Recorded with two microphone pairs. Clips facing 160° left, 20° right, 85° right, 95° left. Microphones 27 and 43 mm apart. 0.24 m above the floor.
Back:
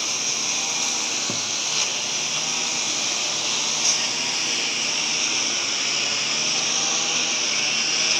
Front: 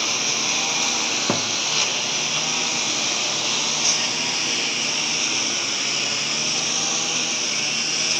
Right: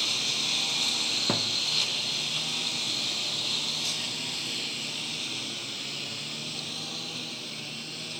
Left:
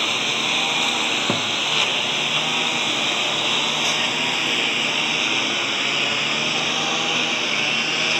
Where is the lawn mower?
50° left; by 8.2 s 75° left.